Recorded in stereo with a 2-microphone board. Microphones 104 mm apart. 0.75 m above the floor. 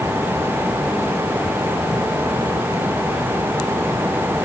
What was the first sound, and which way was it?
Only background noise.